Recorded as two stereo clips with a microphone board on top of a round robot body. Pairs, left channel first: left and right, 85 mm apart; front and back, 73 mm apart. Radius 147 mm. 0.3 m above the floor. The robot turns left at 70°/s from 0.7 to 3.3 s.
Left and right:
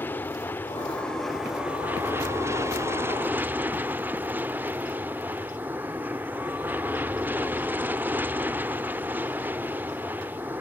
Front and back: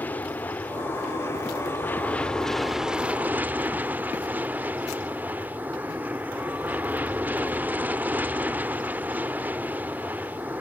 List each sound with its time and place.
0.0 s an aircraft: 45° left; by 10.6 s 135° right